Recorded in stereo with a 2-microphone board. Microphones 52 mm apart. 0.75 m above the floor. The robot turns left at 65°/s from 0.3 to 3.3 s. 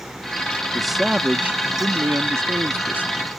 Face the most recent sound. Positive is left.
turn(degrees=-160)